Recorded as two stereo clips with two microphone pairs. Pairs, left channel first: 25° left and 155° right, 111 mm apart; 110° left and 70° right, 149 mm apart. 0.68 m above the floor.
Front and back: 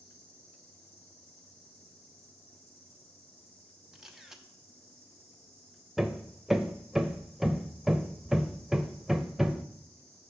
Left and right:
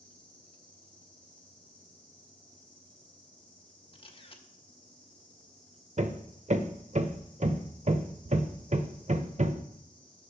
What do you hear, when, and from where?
0.0 s an insect: 30° left, 4 m
3.9 s a camera shutter: 125° left, 0.8 m
6.0 s hammering: 70° right, 0.5 m